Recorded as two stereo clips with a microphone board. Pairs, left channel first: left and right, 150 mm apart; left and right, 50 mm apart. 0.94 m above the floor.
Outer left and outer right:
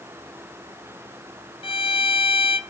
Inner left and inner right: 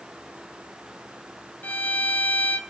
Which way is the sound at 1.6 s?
35° left (ahead or behind).